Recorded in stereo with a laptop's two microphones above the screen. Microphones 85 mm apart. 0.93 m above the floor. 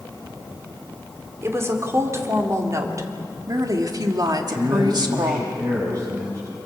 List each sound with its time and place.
1.4 s a woman speaking: 35° right (ahead or behind), 3.5 m; by 5.4 s 60° right (ahead or behind), 2 m
4.4 s a man speaking: 45° right (ahead or behind), 5.5 m